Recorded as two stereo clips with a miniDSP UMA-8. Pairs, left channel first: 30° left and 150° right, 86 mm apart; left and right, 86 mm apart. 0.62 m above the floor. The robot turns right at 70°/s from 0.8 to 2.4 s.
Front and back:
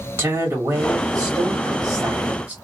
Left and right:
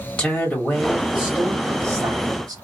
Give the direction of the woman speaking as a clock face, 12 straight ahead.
6 o'clock.